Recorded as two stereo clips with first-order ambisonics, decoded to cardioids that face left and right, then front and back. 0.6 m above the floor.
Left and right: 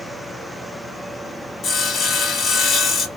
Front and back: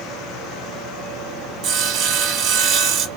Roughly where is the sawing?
Behind left.